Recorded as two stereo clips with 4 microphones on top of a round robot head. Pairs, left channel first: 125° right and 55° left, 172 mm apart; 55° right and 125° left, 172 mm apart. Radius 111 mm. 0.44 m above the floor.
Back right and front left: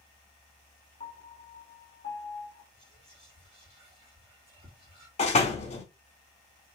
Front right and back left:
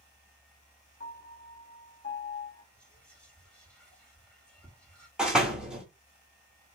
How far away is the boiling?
I don't hear boiling.